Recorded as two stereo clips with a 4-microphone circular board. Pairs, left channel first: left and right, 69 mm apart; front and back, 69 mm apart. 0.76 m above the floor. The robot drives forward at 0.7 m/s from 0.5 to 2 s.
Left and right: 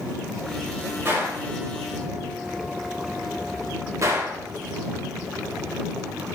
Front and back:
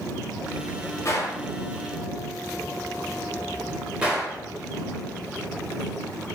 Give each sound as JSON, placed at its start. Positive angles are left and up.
{"t": 1.1, "sound": "a gunshot", "azimuth_deg": -40, "distance_m": 0.8}